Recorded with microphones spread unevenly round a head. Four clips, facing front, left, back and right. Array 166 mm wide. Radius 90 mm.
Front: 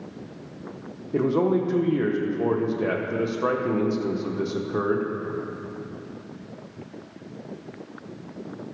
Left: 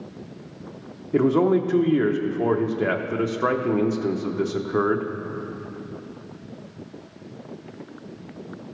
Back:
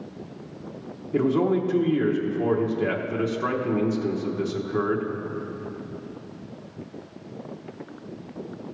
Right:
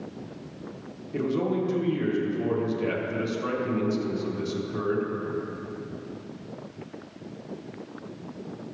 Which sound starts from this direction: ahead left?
A man speaking, at 1.1 s.